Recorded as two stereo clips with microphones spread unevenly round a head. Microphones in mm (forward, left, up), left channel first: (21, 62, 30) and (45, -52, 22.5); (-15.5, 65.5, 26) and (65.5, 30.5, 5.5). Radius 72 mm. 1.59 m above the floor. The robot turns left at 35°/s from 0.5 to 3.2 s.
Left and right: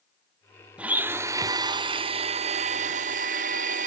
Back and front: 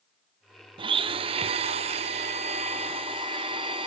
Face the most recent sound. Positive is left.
turn(degrees=-80)